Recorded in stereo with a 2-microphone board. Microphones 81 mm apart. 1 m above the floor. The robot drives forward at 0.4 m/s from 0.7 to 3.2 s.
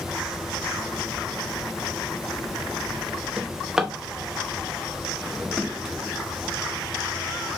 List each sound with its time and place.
3.4 s a drawer: 10° right (ahead or behind), 0.6 m